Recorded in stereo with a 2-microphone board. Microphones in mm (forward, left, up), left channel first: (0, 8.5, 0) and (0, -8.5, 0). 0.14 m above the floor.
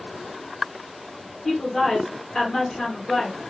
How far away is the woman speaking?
About 1.7 m.